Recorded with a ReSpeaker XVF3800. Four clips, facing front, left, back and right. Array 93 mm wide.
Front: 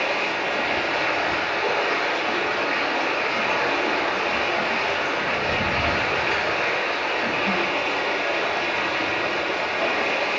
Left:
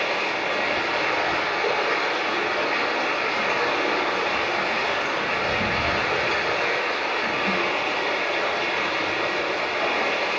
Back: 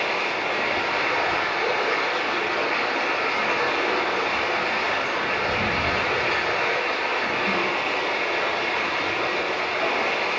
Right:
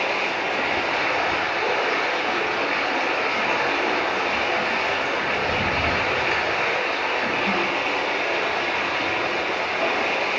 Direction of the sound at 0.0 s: 80° right.